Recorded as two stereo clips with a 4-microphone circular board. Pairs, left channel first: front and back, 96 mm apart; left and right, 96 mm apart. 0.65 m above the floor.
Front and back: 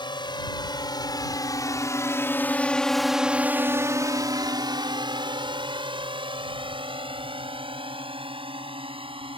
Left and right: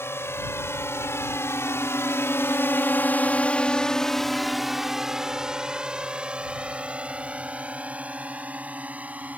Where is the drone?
30° left; by 9.4 s 165° right.